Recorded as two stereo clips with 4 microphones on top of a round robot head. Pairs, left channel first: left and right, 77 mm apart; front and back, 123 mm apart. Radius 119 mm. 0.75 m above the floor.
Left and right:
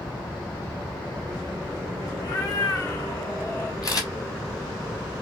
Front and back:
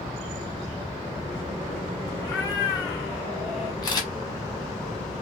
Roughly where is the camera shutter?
Ahead left.